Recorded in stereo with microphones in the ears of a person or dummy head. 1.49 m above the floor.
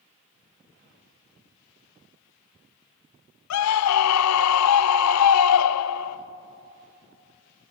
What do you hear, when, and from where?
3.5 s a scream: 85° left, 0.7 m